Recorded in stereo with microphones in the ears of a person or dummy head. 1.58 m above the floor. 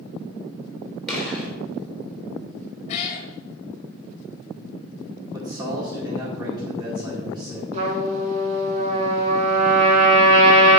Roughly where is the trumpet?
Right.